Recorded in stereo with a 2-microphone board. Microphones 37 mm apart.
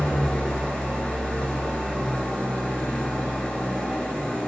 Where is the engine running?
20° left (ahead or behind), 1.2 m.